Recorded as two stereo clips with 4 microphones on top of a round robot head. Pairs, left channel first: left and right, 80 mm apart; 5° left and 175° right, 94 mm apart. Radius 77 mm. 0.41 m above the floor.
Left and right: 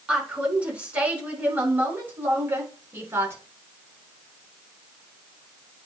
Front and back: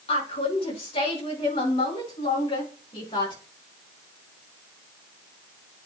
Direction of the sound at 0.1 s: 10° right.